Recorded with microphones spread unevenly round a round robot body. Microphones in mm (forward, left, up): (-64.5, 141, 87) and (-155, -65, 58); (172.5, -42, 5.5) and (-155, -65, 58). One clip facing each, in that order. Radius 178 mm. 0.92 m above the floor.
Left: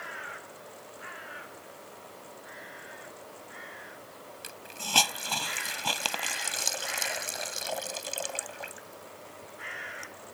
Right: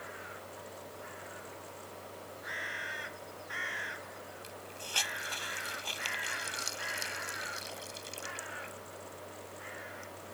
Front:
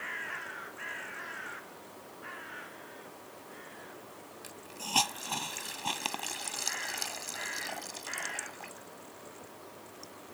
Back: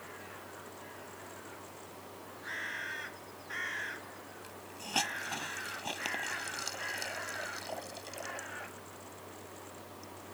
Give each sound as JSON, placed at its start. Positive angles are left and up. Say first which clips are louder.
{"t": 4.4, "sound": "a hiss", "louder": "left 2 dB, front 1 dB", "azimuth_deg": 80}